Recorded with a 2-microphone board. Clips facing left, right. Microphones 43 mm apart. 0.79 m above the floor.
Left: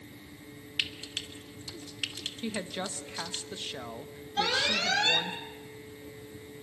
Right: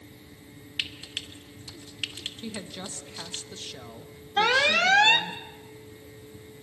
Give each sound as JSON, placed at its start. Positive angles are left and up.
{"t": 0.8, "sound": "frying", "side_deg": -20, "distance_m": 1.3}
{"t": 2.4, "sound": "a woman speaking", "side_deg": 25, "distance_m": 0.9}
{"t": 4.4, "sound": "an alarm", "side_deg": -50, "distance_m": 1.2}